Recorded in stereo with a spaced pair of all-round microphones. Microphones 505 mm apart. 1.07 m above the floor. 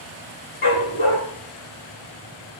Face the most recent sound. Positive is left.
turn(degrees=80)